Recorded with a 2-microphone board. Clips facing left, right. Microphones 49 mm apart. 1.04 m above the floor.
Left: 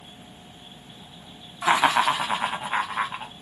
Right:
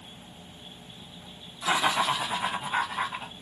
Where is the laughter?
50° left (ahead or behind), 0.7 m; by 3.3 s 45° left (ahead or behind), 1.3 m.